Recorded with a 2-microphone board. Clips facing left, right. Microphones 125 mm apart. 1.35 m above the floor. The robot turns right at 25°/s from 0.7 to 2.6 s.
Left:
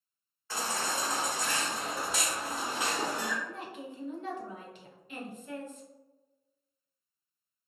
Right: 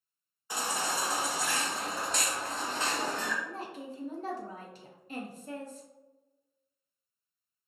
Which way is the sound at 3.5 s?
35° right (ahead or behind).